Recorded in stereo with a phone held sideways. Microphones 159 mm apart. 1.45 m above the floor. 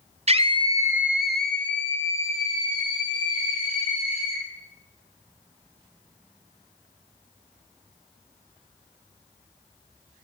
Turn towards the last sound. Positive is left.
turn(degrees=35)  # may be behind; listen again after turning